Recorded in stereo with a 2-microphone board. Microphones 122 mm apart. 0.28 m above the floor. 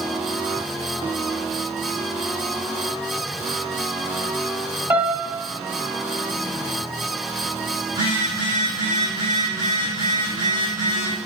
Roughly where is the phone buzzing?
Right.